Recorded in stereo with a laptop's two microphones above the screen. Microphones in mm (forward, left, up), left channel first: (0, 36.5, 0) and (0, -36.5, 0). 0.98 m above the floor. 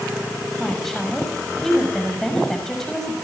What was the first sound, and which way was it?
A woman speaking, 5° left (ahead or behind).